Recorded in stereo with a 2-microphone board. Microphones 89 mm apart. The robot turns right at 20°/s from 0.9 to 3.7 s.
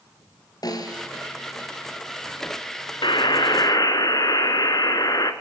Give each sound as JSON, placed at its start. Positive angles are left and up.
{"t": 0.6, "sound": "a snare drum", "side_deg": 45, "distance_m": 3.5}
{"t": 3.0, "sound": "a buzzer", "side_deg": 60, "distance_m": 1.7}